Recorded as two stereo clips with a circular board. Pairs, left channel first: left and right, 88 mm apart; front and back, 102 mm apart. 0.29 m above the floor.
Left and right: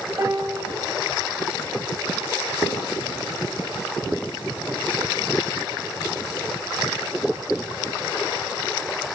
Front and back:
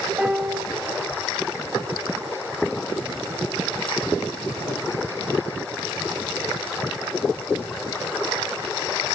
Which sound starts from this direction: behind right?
A piano, at 0.2 s.